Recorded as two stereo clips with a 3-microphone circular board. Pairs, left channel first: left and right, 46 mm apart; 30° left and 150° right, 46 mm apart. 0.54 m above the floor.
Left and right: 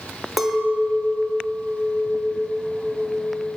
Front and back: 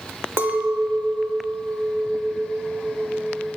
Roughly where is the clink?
Behind.